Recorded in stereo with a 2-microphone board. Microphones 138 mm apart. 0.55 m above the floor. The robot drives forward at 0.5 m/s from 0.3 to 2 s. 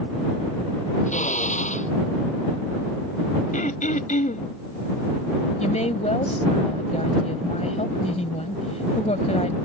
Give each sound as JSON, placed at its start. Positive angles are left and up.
{"t": 1.1, "sound": "a drill", "side_deg": 65}
{"t": 3.5, "sound": "throat clearing", "side_deg": 75}
{"t": 5.6, "sound": "a woman speaking", "side_deg": 55}